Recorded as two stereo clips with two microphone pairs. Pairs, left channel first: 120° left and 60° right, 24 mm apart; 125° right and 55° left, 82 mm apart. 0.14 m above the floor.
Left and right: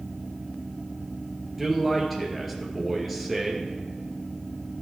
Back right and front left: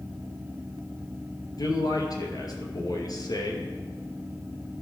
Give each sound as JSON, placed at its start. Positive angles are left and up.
{"t": 1.6, "sound": "a man speaking", "azimuth_deg": -155, "distance_m": 2.0}